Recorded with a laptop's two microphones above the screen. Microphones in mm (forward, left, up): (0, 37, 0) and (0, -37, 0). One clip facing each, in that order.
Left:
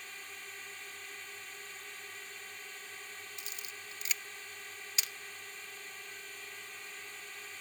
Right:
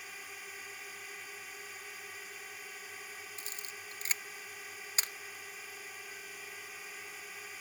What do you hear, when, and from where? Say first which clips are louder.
0.0 s a drone: right 1 dB; 5° right (ahead or behind)
3.4 s a camera shutter: right 1 dB; 35° right (ahead or behind)